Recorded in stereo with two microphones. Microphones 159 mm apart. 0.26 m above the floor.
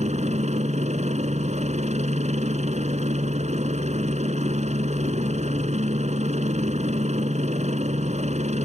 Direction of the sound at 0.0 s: 50° right (ahead or behind).